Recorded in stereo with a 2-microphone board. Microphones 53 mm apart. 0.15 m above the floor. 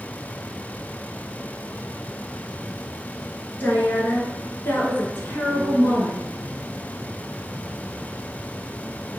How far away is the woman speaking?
About 1.4 m.